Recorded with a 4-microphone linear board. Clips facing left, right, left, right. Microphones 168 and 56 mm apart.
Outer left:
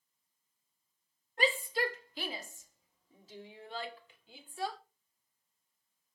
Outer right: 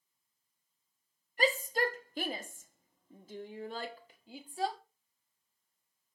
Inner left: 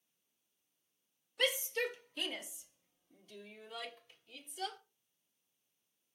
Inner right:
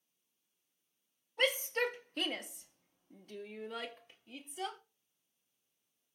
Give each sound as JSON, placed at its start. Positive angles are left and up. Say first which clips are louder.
{"t": 1.4, "sound": "a shout", "louder": "outer right 2 dB, inner right 2 dB", "side_deg": -40, "distance_m": 1.3}